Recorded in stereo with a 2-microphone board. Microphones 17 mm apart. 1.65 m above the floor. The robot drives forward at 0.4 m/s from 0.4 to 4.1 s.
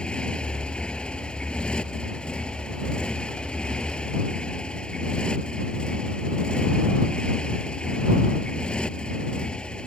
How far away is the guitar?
I don't hear a guitar.